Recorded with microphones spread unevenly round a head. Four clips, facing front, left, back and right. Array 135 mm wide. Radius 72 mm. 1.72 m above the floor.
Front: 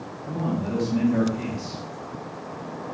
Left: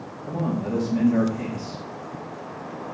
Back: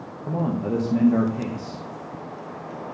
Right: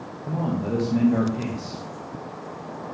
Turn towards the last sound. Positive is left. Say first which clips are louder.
# even, back 2 dB
turn(degrees=-155)